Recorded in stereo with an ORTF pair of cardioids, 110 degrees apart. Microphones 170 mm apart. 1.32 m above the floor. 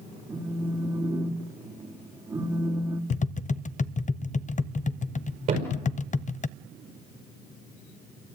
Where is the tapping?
50° left, 0.5 m.